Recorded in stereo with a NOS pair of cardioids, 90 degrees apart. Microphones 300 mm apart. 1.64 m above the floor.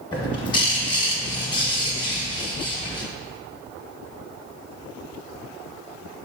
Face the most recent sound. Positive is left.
turn(degrees=15)